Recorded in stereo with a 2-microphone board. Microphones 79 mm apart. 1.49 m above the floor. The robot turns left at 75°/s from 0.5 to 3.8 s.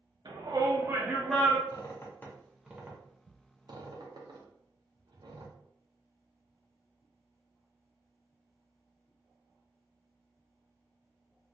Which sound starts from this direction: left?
A squeak, at 1.7 s.